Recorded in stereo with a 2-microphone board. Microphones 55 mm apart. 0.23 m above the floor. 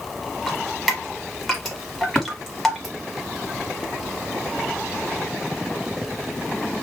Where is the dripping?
Centre (ahead or behind), 0.9 m.